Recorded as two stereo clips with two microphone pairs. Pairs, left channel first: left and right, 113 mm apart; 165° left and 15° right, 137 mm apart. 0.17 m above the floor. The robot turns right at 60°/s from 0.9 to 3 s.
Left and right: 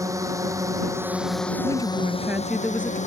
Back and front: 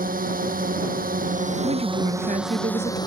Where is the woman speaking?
55° right; by 3.0 s 25° left.